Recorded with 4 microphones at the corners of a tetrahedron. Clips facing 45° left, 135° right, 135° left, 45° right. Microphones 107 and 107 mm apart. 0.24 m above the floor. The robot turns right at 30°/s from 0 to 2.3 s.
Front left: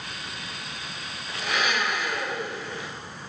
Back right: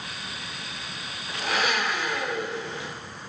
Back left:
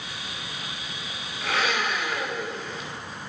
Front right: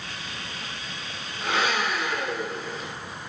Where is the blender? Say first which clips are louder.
Back right 1 dB, front right 1 dB; 105° right, 2 m; by 2.9 s 75° right, 2 m.